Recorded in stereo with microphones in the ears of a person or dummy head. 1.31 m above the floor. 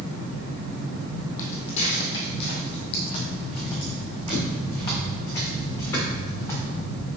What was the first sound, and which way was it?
Footsteps, 40° left (ahead or behind).